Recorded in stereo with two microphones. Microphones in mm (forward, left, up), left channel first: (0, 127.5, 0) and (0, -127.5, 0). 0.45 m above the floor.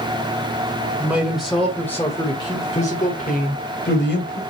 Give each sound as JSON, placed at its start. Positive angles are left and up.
{"t": 1.0, "sound": "a man speaking", "side_deg": -5, "distance_m": 1.9}